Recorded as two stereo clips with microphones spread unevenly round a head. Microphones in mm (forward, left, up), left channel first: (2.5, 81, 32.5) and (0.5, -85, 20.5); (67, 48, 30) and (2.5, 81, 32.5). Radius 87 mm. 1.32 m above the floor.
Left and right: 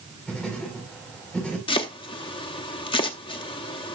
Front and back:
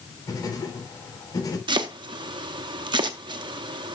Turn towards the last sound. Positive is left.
turn(degrees=150)